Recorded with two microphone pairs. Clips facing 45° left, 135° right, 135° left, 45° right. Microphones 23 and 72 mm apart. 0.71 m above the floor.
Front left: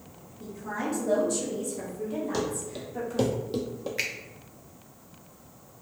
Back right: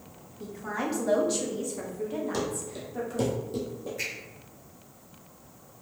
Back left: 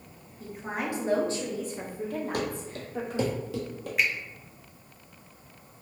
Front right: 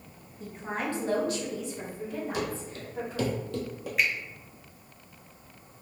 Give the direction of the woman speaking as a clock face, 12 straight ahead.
4 o'clock.